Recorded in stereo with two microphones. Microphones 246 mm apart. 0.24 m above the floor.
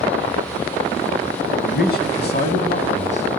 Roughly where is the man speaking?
Left.